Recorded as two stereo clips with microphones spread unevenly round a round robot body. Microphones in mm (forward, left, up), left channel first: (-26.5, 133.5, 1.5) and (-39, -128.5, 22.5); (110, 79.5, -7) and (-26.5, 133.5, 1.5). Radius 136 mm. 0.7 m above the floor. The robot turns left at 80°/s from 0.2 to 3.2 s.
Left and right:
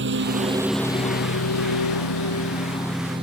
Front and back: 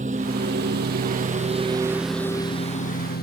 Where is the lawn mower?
140° right; by 3.2 s 20° right.